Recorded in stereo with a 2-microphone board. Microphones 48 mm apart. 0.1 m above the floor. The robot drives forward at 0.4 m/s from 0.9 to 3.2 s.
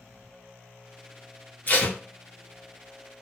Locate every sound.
1.7 s tape being pulled: 30° left (ahead or behind), 1.0 m